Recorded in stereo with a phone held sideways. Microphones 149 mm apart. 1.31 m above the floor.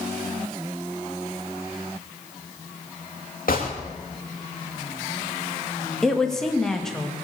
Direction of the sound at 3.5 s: 70° left (ahead or behind).